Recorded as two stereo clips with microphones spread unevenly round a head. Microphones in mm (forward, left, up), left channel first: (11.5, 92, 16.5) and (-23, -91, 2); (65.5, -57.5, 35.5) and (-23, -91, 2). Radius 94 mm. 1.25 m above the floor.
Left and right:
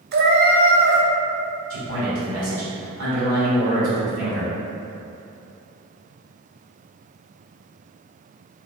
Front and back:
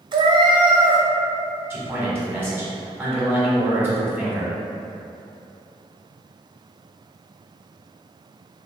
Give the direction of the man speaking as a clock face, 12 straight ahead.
3 o'clock.